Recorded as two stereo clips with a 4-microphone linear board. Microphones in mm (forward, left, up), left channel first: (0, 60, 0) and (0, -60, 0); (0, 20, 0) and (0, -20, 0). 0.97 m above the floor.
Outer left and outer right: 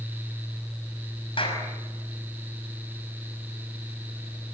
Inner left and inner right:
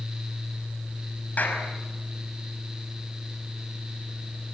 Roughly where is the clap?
Left.